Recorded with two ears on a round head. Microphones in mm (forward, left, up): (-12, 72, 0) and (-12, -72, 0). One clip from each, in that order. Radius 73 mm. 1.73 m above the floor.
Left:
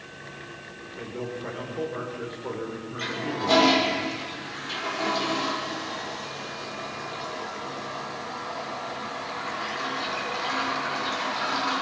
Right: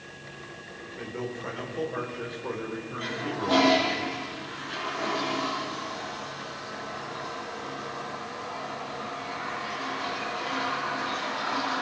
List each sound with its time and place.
1.0 s a man speaking: 15° right (ahead or behind), 5.5 m
3.0 s a toilet flushing: 60° left (ahead or behind), 7 m